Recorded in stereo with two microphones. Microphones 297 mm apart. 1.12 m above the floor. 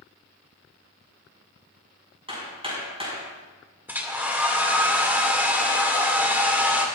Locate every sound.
2.3 s hammering: 20° right (ahead or behind), 5.5 m
3.9 s a hair dryer: 5° right (ahead or behind), 2 m